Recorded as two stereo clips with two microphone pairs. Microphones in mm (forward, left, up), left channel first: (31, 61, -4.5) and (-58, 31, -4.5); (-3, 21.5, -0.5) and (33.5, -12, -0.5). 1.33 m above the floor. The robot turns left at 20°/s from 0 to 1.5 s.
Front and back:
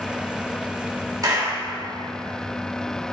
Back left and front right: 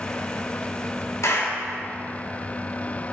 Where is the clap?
150° left, 2.5 m; by 1.6 s 145° left, 2.5 m.